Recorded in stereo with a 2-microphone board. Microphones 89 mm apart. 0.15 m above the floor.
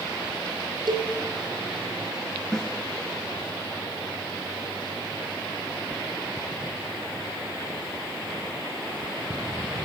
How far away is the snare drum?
About 2 m.